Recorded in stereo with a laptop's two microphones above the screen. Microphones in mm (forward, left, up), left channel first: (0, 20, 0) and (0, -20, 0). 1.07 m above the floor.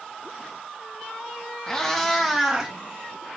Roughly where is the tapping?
No tapping in this recording.